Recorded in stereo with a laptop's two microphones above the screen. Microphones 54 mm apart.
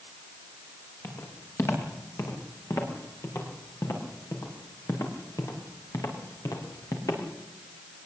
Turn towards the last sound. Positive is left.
turn(degrees=80)